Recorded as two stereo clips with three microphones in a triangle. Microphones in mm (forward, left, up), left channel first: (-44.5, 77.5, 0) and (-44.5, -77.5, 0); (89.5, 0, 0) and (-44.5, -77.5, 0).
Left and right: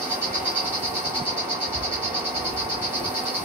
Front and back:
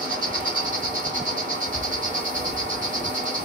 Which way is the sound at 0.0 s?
165° right.